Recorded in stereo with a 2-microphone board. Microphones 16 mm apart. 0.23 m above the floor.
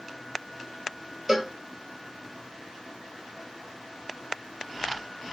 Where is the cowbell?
30° right (ahead or behind), 0.8 m.